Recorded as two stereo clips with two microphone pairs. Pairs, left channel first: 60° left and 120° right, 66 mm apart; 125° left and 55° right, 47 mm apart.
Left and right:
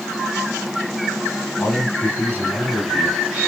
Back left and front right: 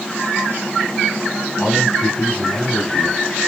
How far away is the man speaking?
About 1.3 m.